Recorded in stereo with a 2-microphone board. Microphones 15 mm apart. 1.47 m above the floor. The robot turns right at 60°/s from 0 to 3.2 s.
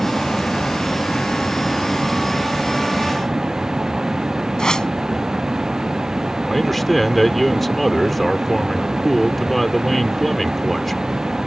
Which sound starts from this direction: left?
A whoosh, at 4.6 s.